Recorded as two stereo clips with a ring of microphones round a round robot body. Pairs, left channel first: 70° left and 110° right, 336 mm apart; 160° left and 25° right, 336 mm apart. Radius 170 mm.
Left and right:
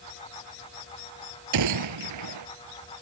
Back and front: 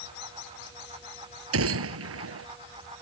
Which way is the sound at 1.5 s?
75° right.